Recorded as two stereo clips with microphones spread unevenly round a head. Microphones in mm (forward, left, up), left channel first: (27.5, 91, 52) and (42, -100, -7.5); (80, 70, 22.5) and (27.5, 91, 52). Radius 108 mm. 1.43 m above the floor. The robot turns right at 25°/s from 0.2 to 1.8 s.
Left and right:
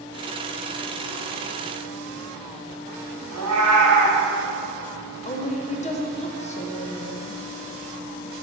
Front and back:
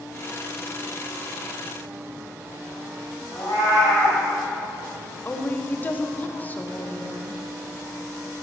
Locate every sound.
3.3 s a cat meowing: 110° right, 2 m
5.2 s a woman speaking: 35° left, 1.2 m